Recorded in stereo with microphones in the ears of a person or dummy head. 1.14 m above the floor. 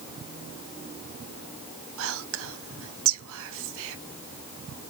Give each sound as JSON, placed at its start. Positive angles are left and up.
{"t": 2.0, "sound": "whispering", "side_deg": -75, "distance_m": 0.9}